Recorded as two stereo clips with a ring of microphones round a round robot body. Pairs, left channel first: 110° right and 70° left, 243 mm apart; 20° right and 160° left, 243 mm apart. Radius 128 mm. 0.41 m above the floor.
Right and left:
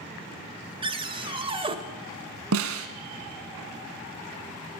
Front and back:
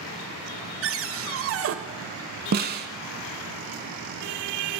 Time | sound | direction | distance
0.8 | a cupboard door | 135° left | 1.2 m
2.5 | a snare drum | 105° left | 1.0 m